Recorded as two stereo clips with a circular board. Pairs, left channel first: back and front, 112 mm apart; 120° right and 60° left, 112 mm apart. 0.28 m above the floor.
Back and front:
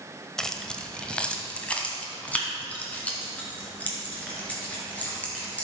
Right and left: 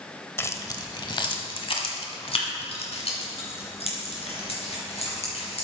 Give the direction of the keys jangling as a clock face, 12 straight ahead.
3 o'clock.